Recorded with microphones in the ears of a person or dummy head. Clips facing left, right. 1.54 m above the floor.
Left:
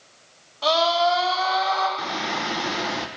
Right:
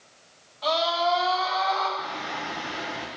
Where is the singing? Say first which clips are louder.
Left 5 dB; 70° left (ahead or behind), 0.9 m.